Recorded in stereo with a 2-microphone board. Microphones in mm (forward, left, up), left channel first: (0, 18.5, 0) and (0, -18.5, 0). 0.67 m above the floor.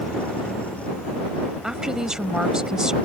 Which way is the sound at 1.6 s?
20° right (ahead or behind).